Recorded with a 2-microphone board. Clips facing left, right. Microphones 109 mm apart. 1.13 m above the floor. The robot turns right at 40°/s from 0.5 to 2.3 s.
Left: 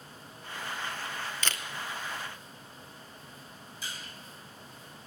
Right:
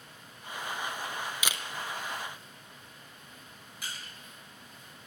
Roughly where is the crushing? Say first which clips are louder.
Even; right.